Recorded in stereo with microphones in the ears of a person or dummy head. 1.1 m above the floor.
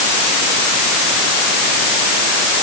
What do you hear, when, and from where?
Only background noise.